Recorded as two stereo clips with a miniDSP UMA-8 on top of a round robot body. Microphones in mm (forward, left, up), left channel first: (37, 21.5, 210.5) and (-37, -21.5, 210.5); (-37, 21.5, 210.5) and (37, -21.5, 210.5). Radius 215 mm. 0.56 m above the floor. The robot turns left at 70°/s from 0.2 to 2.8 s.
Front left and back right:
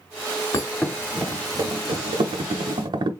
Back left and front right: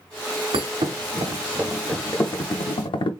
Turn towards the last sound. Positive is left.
turn(degrees=175)